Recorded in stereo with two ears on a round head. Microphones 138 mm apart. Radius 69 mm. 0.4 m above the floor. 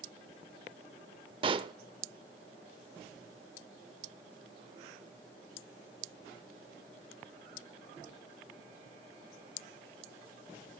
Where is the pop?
35° right (ahead or behind), 0.5 m.